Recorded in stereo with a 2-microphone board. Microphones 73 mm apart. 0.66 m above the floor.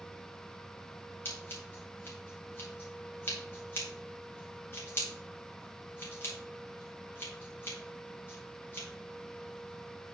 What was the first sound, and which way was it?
Scissors, 35° left (ahead or behind).